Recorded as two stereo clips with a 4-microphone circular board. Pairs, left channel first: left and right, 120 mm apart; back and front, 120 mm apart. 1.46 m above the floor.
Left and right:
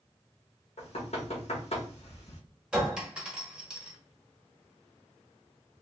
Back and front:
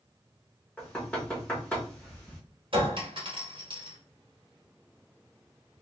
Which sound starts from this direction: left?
Knocking, at 0.8 s.